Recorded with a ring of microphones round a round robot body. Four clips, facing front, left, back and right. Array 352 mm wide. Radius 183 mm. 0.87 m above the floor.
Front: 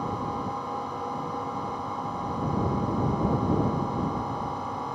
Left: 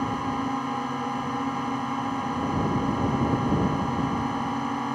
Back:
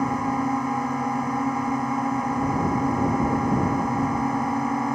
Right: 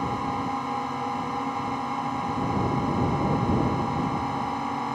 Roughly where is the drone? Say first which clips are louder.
Even, back 7 dB; behind.